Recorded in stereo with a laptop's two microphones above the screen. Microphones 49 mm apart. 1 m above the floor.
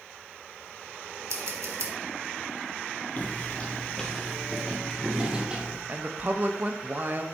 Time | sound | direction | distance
1.3 | scissors | 75° right (ahead or behind) | 1.3 m
3.2 | footsteps | 40° left (ahead or behind) | 1.2 m
5.9 | a woman speaking | 40° right (ahead or behind) | 0.7 m